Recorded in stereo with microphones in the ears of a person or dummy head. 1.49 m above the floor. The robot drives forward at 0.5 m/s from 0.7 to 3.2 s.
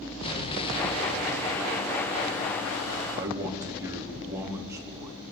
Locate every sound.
0.2 s an explosion: 30° left (ahead or behind), 1.7 m; by 2.6 s 55° left (ahead or behind), 1.0 m
3.1 s a man speaking: 15° right (ahead or behind), 3.5 m